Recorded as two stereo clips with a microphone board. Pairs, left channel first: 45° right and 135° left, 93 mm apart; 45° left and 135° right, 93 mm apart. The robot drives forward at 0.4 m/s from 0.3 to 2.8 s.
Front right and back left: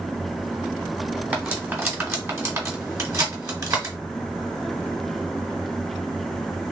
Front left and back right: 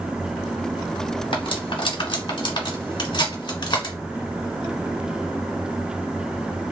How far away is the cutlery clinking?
About 1.7 m.